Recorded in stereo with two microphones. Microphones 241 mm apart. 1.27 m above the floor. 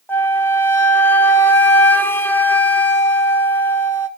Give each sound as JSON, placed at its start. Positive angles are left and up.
{"t": 0.1, "sound": "a flute", "side_deg": 10, "distance_m": 1.1}